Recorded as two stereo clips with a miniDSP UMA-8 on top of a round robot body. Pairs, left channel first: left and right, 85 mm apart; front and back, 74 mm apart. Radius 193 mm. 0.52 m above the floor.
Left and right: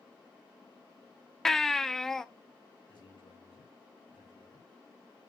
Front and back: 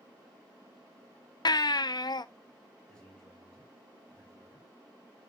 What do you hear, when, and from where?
1.4 s a baby crying: 5° left, 0.6 m
2.9 s a man speaking: 75° left, 5 m